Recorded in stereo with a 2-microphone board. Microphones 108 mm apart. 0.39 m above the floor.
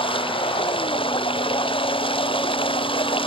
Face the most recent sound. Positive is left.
turn(degrees=50)  # may be behind; listen again after turning